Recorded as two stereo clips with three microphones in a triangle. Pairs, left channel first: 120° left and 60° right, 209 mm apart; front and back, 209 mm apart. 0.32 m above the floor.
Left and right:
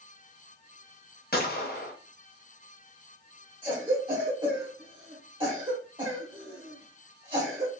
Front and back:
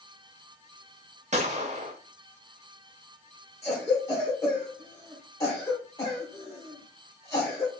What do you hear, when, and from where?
1.3 s a gunshot: 135° left, 0.7 m
3.6 s a cough: 55° right, 0.9 m